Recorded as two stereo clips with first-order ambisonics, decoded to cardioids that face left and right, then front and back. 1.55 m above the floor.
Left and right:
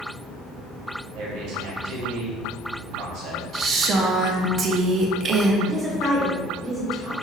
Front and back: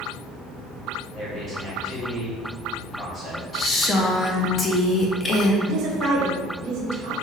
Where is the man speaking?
65° right, 1.7 m.